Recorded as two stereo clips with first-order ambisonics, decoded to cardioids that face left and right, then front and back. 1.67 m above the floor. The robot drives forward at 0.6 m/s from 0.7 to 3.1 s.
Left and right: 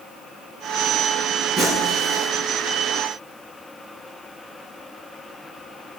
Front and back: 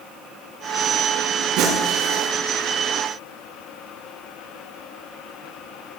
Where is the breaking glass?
165° right, 6.5 m; by 2.3 s 170° right, 7 m.